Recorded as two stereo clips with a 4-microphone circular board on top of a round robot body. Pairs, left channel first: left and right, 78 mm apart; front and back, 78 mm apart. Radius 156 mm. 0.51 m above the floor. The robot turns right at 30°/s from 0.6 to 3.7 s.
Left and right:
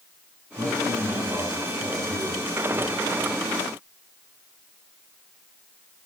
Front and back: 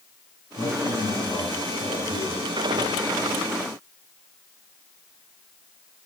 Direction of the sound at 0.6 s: 50° right.